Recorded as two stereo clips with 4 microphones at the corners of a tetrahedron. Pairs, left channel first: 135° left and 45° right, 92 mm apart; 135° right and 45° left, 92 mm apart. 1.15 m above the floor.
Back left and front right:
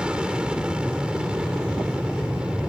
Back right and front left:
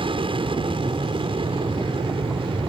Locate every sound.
0.0 s an aircraft: 35° left